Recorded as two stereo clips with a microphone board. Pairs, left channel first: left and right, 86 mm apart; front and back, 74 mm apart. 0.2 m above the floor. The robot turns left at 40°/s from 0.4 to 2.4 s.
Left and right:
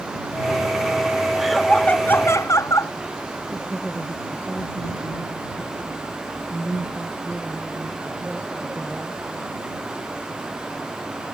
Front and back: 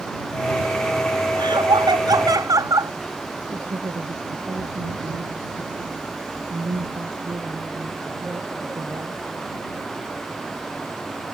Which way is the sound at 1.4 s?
175° right.